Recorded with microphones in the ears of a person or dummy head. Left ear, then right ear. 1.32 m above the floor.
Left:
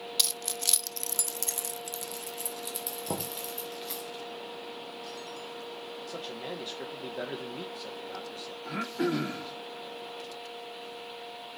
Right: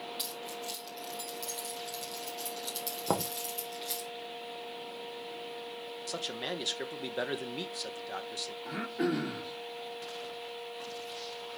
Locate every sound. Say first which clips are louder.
0.2 s keys jangling: left 8 dB; 60° left (ahead or behind), 0.6 m; by 4.1 s 10° left (ahead or behind), 1.9 m
3.1 s knocking: right 5 dB; 40° right (ahead or behind), 0.9 m
6.1 s a man speaking: right 4 dB; 50° right (ahead or behind), 0.8 m
8.7 s throat clearing: left 3 dB; 25° left (ahead or behind), 1.5 m